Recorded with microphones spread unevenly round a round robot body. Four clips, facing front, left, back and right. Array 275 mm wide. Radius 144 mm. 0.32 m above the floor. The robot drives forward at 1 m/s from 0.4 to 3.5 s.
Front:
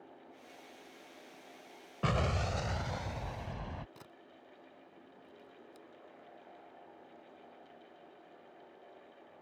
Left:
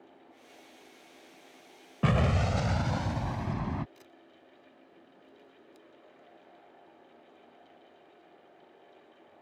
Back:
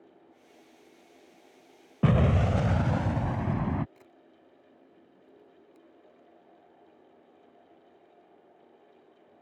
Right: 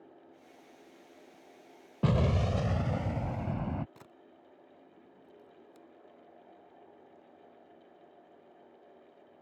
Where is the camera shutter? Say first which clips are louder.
Even, front 1 dB; 50° right.